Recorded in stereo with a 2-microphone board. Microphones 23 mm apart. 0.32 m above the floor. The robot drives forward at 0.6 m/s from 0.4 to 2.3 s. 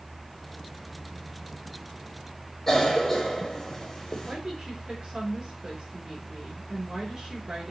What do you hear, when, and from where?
2.7 s a cough: 15° left (ahead or behind), 1.0 m
4.2 s a woman speaking: 35° right (ahead or behind), 3.5 m